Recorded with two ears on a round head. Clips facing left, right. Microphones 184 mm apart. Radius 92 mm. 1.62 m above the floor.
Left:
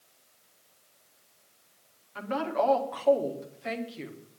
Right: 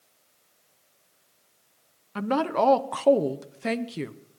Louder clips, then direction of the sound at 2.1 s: Right 4 dB; 60° right (ahead or behind).